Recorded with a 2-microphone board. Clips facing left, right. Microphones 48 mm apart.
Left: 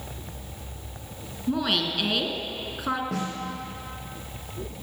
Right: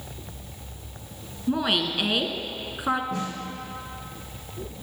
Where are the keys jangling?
I don't hear keys jangling.